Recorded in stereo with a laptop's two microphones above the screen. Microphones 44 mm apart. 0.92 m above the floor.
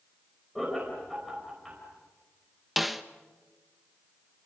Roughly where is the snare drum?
Centre.